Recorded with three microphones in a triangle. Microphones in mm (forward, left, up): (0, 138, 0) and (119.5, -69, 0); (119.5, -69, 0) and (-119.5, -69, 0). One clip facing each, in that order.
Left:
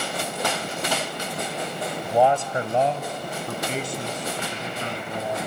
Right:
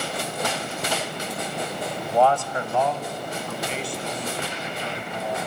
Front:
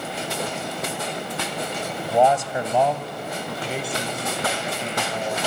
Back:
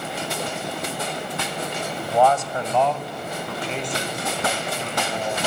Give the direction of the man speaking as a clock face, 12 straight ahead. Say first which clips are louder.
Left 1 dB, front 1 dB; 10 o'clock.